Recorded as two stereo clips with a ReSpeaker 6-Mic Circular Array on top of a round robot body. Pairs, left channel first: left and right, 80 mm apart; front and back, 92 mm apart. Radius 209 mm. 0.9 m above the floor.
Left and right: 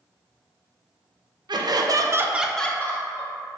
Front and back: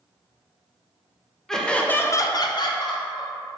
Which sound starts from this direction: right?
Laughter, at 1.5 s.